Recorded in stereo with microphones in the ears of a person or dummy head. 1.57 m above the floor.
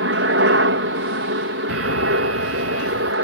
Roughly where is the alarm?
Right.